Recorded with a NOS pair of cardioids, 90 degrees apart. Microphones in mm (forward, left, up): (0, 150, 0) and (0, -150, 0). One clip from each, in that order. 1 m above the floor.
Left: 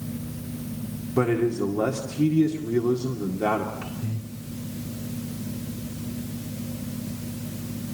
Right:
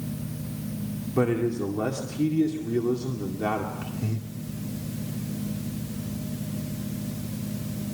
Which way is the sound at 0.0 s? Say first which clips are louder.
Left 1 dB; 50° right.